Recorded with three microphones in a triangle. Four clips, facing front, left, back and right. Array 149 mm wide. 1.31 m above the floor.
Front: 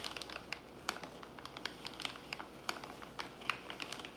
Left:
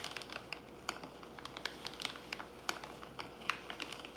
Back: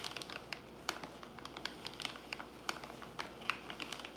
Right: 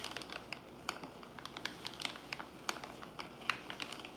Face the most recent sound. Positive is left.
No sound to turn to.